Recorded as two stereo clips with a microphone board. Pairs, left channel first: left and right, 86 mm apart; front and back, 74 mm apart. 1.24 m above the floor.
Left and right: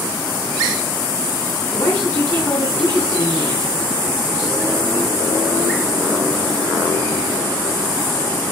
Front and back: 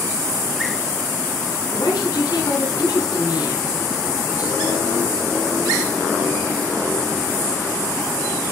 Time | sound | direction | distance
1.7 | a woman speaking | 35° left | 8.5 m